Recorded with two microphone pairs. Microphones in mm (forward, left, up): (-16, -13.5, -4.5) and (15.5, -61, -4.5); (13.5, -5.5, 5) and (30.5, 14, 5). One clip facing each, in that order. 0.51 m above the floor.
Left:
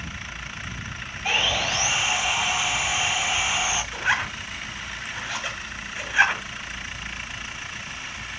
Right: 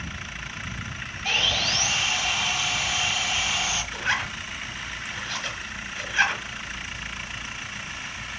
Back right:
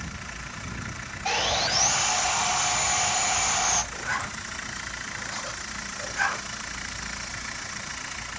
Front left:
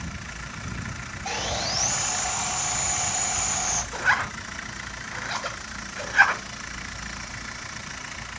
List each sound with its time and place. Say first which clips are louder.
1.2 s sawing: left 2 dB, back right 4 dB; 170° right, 1.4 m
3.9 s a zipper: left 2 dB, front left 6 dB; 50° left, 2.5 m